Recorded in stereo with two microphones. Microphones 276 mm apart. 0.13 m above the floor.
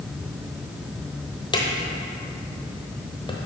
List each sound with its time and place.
1.5 s a drawer: 15° left (ahead or behind), 0.9 m